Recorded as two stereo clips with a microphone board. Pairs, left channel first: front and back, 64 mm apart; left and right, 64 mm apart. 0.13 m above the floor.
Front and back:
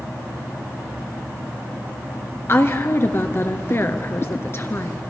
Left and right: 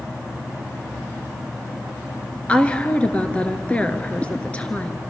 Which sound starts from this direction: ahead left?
A woman speaking, at 2.5 s.